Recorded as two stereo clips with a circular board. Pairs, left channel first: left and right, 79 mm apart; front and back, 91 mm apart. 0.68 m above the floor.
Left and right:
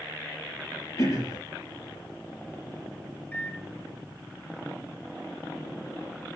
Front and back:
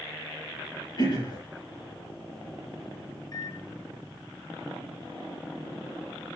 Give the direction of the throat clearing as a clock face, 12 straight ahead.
11 o'clock.